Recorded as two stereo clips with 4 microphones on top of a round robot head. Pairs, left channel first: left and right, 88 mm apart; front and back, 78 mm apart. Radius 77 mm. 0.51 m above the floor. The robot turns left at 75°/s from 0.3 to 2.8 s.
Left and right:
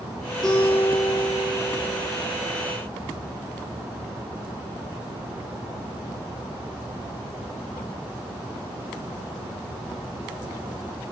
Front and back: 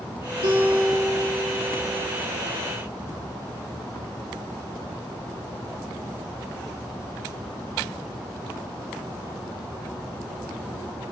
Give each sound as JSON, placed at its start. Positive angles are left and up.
{"t": 0.4, "sound": "a guitar", "azimuth_deg": 175, "distance_m": 3.0}